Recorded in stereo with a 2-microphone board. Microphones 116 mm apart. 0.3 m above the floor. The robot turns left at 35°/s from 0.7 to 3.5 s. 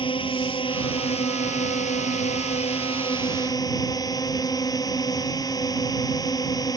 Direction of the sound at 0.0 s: 130° left.